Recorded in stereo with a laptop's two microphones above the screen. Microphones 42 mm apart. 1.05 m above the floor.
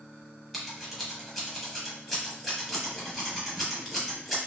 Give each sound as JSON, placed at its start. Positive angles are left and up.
{"t": 0.5, "sound": "scissors", "side_deg": 0, "distance_m": 0.9}